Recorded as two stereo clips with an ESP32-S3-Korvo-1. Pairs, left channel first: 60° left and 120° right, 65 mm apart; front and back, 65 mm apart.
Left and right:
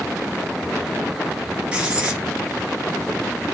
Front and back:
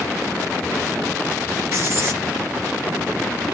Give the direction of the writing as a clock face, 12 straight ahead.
6 o'clock.